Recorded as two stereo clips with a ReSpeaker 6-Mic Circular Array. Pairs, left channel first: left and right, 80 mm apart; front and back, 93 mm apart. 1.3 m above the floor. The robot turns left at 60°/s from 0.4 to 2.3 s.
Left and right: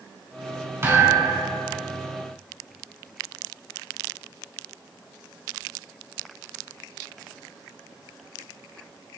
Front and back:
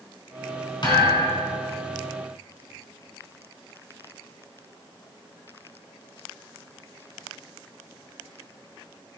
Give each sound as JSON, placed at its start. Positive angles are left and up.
{"t": 0.8, "sound": "a thud", "azimuth_deg": -35, "distance_m": 3.5}